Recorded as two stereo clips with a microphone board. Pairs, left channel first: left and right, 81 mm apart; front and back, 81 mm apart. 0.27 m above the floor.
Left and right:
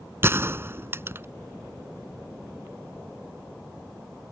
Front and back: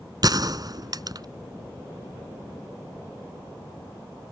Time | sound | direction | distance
0.2 | a gunshot | 150° right | ?